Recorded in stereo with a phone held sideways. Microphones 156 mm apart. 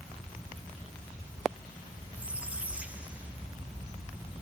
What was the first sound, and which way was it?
A squeak, 10° right (ahead or behind).